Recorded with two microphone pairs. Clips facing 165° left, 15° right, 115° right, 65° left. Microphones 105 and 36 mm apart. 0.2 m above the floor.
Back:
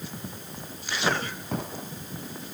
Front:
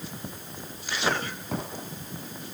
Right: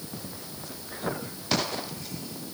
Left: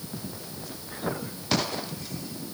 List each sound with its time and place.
Only background noise.